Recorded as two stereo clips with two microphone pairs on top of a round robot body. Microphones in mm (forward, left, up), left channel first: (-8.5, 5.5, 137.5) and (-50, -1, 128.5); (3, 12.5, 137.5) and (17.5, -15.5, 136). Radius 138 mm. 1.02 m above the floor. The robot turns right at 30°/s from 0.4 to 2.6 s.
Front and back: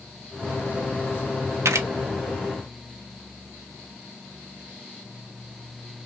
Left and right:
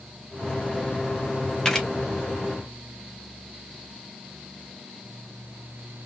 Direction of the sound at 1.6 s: 170° right.